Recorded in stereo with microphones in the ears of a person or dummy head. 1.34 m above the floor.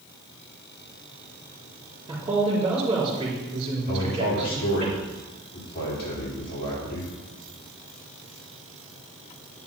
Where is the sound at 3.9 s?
55° left (ahead or behind), 3.5 m.